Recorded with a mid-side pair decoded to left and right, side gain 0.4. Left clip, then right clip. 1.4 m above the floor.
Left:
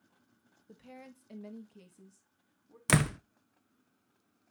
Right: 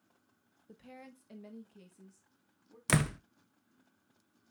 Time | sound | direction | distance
0.7 | a woman speaking | 5° left | 1.1 m
2.9 | a door slam | 25° left | 0.6 m